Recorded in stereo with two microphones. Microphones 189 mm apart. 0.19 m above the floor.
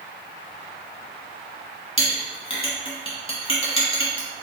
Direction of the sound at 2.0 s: 25° left (ahead or behind).